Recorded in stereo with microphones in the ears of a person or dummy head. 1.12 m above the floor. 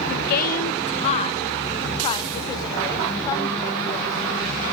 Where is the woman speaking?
55° left (ahead or behind), 0.7 m; by 4.7 s 20° left (ahead or behind), 3 m.